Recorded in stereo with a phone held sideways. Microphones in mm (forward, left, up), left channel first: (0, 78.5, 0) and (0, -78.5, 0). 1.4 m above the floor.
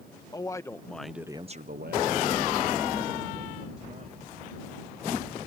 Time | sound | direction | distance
0.3 | a man speaking | 20° left (ahead or behind) | ?